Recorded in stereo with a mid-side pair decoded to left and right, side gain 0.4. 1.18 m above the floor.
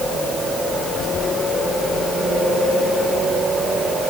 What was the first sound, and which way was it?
Only background noise.